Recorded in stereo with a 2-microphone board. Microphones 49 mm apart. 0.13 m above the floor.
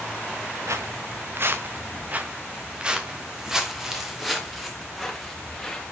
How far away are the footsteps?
About 1.5 m.